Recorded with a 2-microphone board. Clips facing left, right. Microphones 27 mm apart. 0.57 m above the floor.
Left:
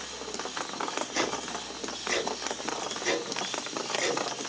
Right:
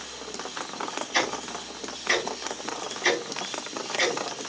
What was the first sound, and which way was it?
Ticking, 70° right (ahead or behind).